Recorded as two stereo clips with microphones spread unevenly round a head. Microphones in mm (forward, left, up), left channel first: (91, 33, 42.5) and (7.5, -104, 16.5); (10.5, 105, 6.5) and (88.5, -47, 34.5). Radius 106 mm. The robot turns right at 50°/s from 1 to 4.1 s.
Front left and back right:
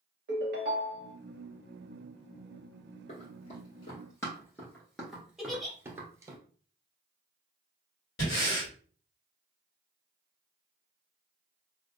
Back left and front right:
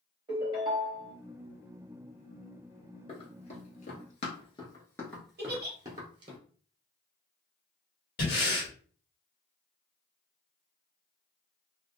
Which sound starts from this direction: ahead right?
A giggle, at 5.4 s.